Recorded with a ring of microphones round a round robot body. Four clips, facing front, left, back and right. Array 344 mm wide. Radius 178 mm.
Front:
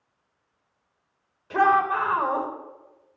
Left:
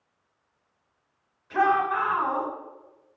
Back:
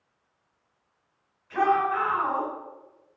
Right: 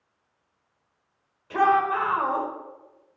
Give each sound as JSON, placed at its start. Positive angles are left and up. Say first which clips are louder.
{"t": 1.5, "sound": "a shout", "louder": "right 2 dB, front 3 dB", "azimuth_deg": -25, "distance_m": 4.0}